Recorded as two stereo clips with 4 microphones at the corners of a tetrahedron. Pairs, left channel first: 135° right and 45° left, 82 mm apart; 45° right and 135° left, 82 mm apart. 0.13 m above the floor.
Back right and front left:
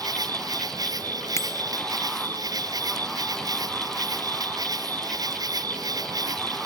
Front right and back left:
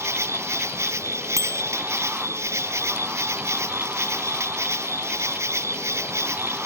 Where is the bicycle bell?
175° left.